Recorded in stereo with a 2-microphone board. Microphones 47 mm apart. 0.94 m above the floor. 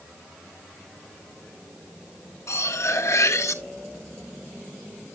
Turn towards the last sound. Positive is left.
turn(degrees=75)  # may be behind; listen again after turning